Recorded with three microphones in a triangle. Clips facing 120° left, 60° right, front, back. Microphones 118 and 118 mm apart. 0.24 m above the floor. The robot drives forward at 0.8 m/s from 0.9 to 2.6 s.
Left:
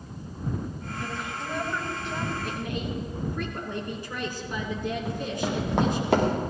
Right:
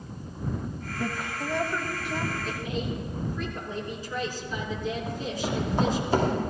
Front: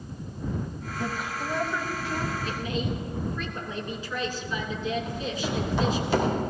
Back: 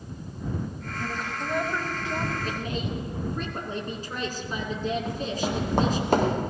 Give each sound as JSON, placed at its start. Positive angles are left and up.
{"t": 1.0, "sound": "a woman speaking", "azimuth_deg": -50, "distance_m": 1.1}
{"t": 2.4, "sound": "a woman speaking", "azimuth_deg": 135, "distance_m": 2.5}
{"t": 5.0, "sound": "running footsteps", "azimuth_deg": 145, "distance_m": 5.0}